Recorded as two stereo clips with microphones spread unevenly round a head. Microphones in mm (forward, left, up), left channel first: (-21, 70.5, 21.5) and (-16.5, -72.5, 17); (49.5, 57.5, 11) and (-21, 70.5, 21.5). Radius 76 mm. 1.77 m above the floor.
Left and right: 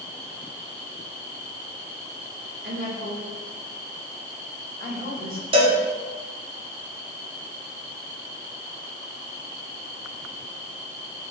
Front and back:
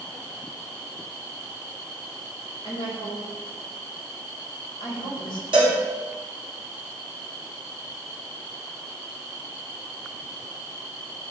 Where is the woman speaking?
50° right, 2.5 m.